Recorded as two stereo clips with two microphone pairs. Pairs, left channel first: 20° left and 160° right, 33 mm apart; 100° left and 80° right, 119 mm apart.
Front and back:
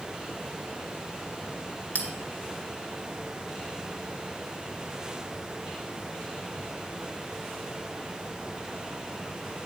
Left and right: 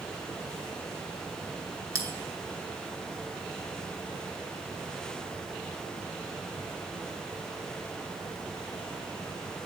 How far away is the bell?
About 1.8 m.